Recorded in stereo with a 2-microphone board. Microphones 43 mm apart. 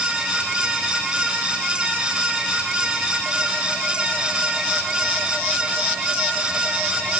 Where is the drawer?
No drawer in this recording.